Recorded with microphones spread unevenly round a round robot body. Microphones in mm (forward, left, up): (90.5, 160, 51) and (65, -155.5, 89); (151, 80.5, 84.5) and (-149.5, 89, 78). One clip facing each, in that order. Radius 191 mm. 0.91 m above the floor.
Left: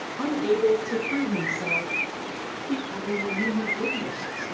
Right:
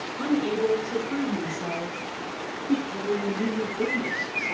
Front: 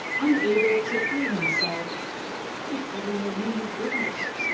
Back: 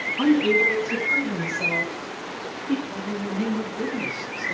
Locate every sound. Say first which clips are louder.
0.2 s a woman speaking: left 2 dB, back 2 dB; 170° right, 5.5 m
2.9 s a woman speaking: right 2 dB, front 1 dB; 170° left, 5 m